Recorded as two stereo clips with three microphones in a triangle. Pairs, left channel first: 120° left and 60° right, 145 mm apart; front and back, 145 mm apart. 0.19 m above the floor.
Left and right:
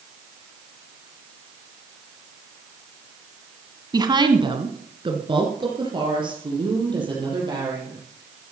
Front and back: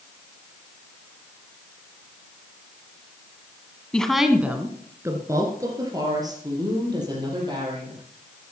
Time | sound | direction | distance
3.9 | a woman speaking | 75° right | 1.3 m